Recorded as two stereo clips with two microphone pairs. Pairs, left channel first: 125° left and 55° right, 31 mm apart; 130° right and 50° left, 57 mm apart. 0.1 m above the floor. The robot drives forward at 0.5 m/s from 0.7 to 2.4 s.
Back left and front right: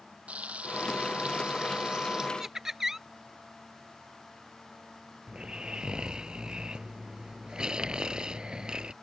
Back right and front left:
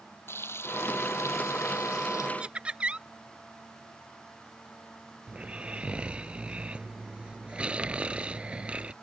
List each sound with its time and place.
0.3 s frying: 90° right; by 2.3 s 120° right
2.4 s laughter: 5° left
5.3 s snoring: 10° right